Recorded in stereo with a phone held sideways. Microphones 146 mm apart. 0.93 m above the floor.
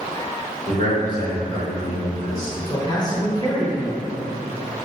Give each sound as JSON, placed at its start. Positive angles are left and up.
{"t": 0.7, "sound": "a man speaking", "side_deg": -65, "distance_m": 1.9}
{"t": 2.7, "sound": "a man speaking", "side_deg": 25, "distance_m": 0.7}